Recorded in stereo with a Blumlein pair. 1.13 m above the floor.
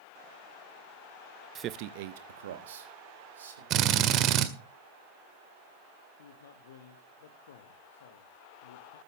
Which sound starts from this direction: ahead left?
A man speaking, at 6.2 s.